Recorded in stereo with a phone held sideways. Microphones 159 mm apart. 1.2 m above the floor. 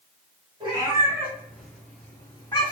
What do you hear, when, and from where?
0.6 s a cat meowing: 30° right (ahead or behind), 1.2 m; by 2.7 s 35° left (ahead or behind), 1.2 m